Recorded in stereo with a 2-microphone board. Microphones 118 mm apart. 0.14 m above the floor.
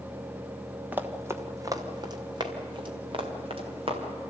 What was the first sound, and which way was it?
Running footsteps, 15° right (ahead or behind).